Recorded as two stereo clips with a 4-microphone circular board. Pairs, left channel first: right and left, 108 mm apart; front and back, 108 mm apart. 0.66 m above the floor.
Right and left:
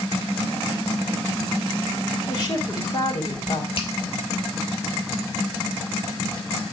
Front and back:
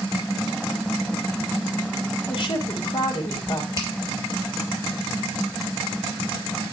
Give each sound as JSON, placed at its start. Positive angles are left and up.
{"t": 2.3, "sound": "a woman speaking", "azimuth_deg": -45, "distance_m": 3.5}
{"t": 3.8, "sound": "a finger snap", "azimuth_deg": -120, "distance_m": 2.5}